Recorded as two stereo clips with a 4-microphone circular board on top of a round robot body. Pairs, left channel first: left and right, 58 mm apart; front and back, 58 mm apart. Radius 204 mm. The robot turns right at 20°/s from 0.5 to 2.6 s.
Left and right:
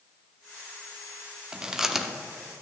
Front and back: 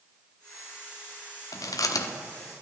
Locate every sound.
1.5 s chewing: 15° right, 0.6 m; by 2.1 s straight ahead, 0.6 m